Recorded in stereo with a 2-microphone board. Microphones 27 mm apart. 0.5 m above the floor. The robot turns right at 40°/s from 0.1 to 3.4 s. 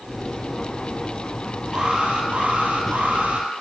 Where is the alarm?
145° right, 7.5 m; by 3.5 s 80° right, 7.5 m.